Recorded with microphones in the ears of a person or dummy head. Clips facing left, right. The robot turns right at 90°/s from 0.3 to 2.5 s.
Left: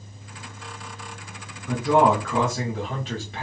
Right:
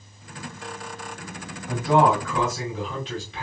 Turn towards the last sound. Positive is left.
turn(degrees=145)